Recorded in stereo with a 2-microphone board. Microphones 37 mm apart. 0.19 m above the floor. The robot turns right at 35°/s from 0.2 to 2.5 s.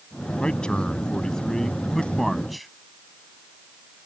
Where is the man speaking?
30° left (ahead or behind); by 2.7 s centre (ahead or behind).